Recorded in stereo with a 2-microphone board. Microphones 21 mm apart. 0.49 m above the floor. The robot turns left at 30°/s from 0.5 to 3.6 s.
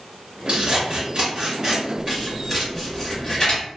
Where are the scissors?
55° right (ahead or behind), 1.2 m; by 3.6 s 40° left (ahead or behind), 1.2 m.